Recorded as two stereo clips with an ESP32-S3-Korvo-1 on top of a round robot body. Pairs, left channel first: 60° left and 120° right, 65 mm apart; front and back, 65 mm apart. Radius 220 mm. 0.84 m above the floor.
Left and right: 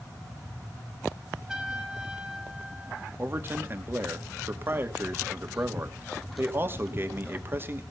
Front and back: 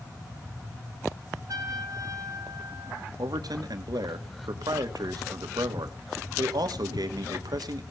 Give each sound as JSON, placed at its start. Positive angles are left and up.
{"t": 1.5, "sound": "a trumpet", "azimuth_deg": 160, "distance_m": 3.0}
{"t": 3.2, "sound": "a man speaking", "azimuth_deg": -175, "distance_m": 2.0}